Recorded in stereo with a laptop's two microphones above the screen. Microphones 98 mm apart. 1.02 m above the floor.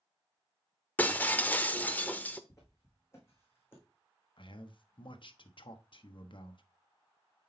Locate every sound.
1.0 s breaking glass: 15° left (ahead or behind), 0.8 m
2.5 s footsteps: 30° left (ahead or behind), 3.5 m; by 3.8 s 20° left (ahead or behind), 2.5 m
4.4 s a man speaking: 60° left (ahead or behind), 1.2 m